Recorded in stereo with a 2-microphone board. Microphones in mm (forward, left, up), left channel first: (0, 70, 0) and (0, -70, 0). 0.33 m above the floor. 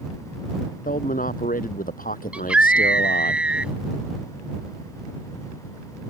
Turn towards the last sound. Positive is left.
turn(degrees=-10)  # may be behind; listen again after turning